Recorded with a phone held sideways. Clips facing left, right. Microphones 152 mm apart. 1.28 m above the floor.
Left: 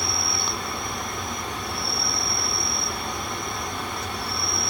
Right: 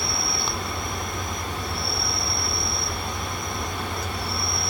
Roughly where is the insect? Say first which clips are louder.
Right 1 dB; centre.